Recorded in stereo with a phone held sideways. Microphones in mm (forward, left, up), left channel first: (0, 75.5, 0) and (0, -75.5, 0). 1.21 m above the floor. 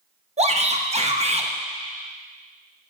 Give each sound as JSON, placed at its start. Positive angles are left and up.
{"t": 0.4, "sound": "a shout", "side_deg": -45, "distance_m": 0.9}